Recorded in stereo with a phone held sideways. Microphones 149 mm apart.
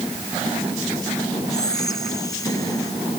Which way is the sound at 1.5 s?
25° left (ahead or behind).